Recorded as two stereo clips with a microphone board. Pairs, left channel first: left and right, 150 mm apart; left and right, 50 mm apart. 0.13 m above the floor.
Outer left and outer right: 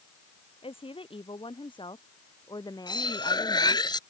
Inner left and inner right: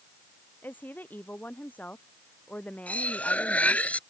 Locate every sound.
0.6 s a woman speaking: 40° left (ahead or behind); by 3.9 s 20° left (ahead or behind)
2.9 s cutlery clinking: 30° left (ahead or behind)